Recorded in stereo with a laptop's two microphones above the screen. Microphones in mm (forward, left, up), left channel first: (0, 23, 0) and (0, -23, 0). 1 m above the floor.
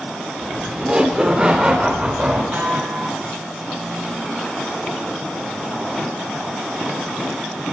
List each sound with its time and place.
0.4 s laughter: 15° right (ahead or behind), 2.5 m; by 2.4 s 25° right (ahead or behind), 4 m
2.5 s a snare drum: 40° right (ahead or behind), 3 m